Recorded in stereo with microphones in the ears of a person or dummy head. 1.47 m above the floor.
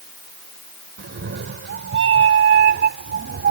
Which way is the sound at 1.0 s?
65° right (ahead or behind).